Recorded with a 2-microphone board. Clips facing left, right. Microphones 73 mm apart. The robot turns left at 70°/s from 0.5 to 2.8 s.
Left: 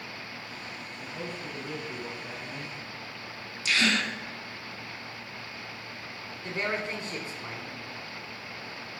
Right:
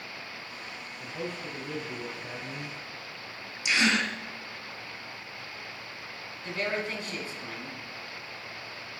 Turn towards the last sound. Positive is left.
turn(degrees=30)  # may be behind; listen again after turning